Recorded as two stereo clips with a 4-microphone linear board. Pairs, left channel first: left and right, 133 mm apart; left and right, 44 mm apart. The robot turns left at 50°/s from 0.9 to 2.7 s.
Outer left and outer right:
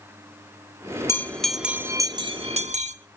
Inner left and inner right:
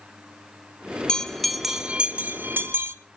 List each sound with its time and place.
1.1 s a bell: 20° left, 1.1 m; by 3.0 s 60° right, 1.1 m